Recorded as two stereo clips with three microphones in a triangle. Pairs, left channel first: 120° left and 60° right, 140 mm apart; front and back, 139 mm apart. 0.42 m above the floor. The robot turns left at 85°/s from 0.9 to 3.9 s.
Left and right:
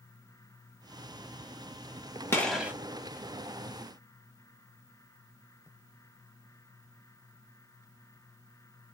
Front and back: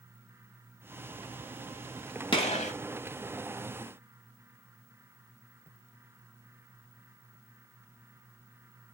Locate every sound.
2.3 s a gunshot: 50° left, 0.8 m; by 2.7 s 15° left, 0.8 m